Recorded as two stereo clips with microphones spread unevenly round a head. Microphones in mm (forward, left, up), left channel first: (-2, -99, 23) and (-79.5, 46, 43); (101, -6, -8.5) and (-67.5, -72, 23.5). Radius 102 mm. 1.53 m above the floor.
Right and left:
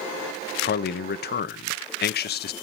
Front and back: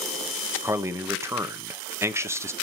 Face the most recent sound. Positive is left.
turn(degrees=-80)